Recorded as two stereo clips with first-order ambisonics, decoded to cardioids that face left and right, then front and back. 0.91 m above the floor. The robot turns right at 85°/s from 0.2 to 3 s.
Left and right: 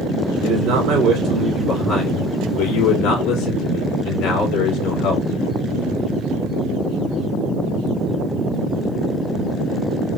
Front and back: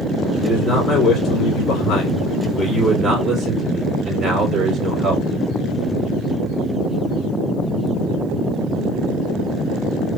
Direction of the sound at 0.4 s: 120° right.